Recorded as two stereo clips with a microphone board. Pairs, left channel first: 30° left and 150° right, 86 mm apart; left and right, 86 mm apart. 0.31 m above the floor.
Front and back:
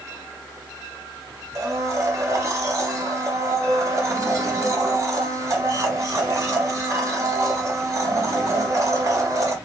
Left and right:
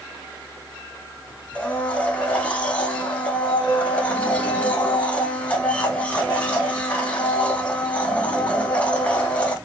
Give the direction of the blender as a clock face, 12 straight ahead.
7 o'clock.